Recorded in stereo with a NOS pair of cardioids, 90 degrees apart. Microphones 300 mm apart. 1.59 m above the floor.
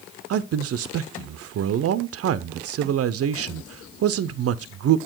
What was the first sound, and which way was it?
A man speaking, 50° right.